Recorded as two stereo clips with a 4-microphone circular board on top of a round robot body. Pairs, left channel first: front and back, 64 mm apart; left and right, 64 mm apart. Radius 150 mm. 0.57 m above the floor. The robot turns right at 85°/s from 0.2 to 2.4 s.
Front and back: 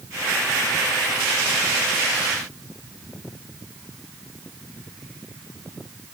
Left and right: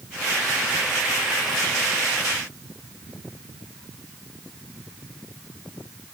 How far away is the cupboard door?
No cupboard door in this recording.